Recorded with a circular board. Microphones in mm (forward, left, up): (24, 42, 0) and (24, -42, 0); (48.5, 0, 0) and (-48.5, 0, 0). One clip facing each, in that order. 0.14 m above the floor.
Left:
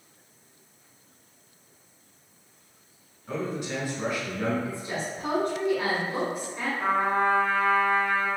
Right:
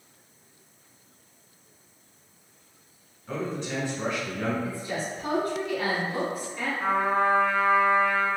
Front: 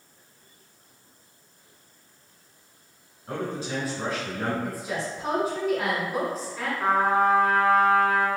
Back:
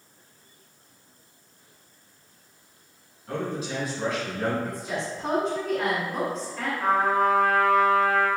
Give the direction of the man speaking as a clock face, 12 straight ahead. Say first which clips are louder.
Even, even; 11 o'clock.